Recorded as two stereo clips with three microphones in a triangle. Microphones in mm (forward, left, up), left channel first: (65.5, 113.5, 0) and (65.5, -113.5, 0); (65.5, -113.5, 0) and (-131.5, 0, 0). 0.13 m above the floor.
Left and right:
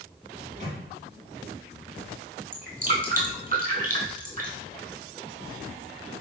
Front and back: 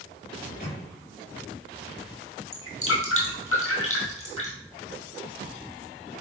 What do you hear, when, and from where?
0.4 s a microwave: 45° right, 2.0 m
2.5 s dripping: 40° right, 1.4 m